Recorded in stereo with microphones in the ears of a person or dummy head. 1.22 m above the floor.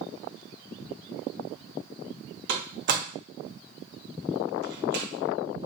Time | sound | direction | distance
2.5 | a door slam | 60° right (ahead or behind) | 1.0 m